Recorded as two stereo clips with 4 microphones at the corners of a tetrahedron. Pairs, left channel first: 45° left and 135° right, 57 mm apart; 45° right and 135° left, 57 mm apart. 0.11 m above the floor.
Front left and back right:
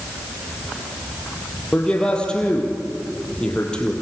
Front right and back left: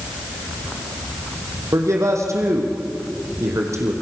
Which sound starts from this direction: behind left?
A man speaking, at 1.7 s.